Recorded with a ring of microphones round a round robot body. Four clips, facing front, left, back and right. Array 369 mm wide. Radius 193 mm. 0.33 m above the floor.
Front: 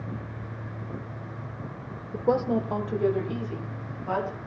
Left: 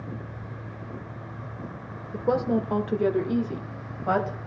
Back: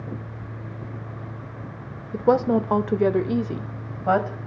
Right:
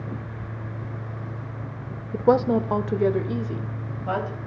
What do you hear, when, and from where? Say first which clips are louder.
2.1 s a woman speaking: right 5 dB, back 5 dB; 125° right, 1.1 m; by 4.4 s 165° left, 2 m